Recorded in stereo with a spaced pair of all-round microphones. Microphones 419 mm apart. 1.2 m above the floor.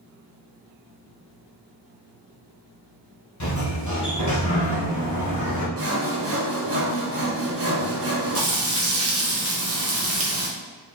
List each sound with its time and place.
3.4 s a sliding door: 45° left (ahead or behind), 1.1 m
5.8 s sawing: 35° right (ahead or behind), 0.8 m
8.3 s frying: 35° right (ahead or behind), 1.1 m